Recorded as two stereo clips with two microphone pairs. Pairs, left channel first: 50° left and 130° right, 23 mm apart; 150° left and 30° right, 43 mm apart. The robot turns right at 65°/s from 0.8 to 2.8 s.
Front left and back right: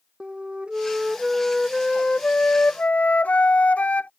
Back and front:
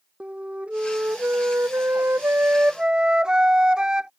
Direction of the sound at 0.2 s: 90° right.